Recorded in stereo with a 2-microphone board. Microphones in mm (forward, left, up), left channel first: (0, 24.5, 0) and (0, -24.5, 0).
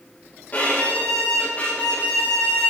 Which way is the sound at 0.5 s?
35° left (ahead or behind).